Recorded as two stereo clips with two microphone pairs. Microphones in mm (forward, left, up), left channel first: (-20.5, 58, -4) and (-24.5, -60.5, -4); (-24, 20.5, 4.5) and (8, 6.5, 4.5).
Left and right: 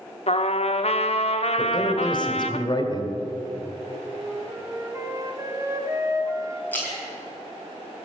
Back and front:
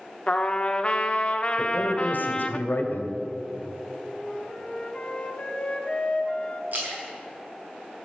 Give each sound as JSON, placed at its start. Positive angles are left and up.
{"t": 0.3, "sound": "a trumpet", "azimuth_deg": 100, "distance_m": 0.9}
{"t": 1.6, "sound": "a man speaking", "azimuth_deg": 135, "distance_m": 1.9}
{"t": 4.1, "sound": "a flute", "azimuth_deg": -150, "distance_m": 1.3}
{"t": 6.7, "sound": "a splash", "azimuth_deg": 10, "distance_m": 5.5}